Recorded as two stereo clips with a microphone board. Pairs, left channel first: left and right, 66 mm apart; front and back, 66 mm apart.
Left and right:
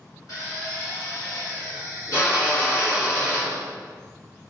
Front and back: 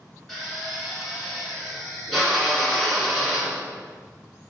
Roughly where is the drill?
Left.